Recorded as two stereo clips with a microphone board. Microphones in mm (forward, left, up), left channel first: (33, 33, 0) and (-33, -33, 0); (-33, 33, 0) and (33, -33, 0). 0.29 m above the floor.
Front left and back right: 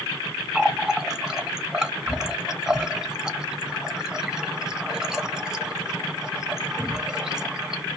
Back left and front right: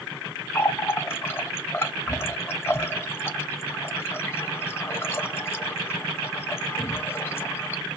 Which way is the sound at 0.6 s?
150° left.